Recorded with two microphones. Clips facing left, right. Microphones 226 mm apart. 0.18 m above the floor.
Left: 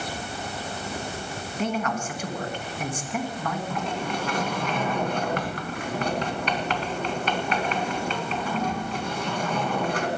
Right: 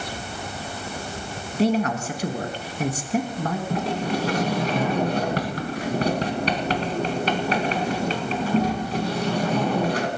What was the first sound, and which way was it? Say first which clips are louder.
A man speaking: right 7 dB; 35° right (ahead or behind).